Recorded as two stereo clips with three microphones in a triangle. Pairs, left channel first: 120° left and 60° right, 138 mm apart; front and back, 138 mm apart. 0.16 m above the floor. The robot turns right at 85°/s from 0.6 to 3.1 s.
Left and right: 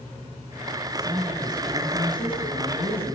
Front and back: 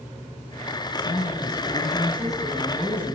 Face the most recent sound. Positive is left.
turn(degrees=160)